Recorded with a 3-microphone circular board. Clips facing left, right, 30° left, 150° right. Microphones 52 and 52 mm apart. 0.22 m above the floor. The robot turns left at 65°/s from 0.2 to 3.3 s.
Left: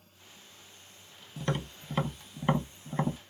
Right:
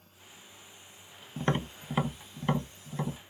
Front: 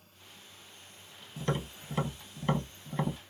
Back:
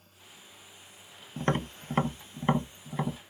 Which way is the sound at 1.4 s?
130° right.